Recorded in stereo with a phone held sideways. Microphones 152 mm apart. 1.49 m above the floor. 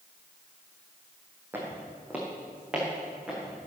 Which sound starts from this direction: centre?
Footsteps, at 1.5 s.